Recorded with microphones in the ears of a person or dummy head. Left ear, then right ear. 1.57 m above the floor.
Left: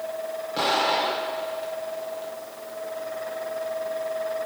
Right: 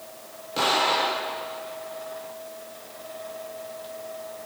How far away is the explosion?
About 2 m.